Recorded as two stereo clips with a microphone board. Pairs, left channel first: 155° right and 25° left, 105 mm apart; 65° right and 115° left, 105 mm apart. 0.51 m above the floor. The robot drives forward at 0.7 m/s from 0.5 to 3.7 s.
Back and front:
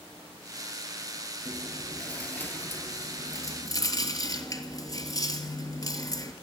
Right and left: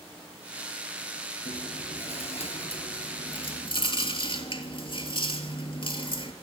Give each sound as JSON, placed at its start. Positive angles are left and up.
{"t": 1.4, "sound": "chewing", "azimuth_deg": -70, "distance_m": 3.0}